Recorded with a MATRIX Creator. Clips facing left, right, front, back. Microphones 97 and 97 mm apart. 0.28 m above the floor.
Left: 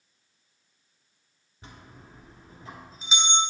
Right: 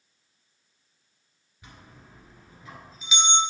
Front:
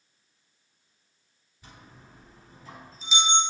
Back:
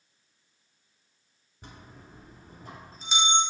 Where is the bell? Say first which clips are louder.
Left 2 dB, back 2 dB; 145° left, 1.5 m.